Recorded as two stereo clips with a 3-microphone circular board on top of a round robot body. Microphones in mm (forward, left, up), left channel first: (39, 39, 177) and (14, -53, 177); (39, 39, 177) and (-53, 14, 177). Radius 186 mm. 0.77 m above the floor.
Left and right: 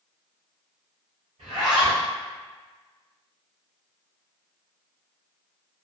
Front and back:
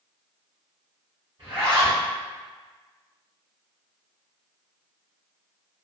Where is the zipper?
120° right, 1.0 m.